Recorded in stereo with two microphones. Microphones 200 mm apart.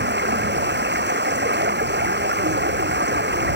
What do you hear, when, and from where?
0.0 s running water: 65° right (ahead or behind)